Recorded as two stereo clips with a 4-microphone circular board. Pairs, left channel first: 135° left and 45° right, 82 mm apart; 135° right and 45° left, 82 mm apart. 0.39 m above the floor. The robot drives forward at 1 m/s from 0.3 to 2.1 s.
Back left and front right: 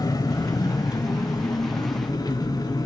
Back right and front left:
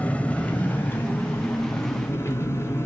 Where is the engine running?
155° left, 1.4 m; by 2.9 s 170° left, 3 m.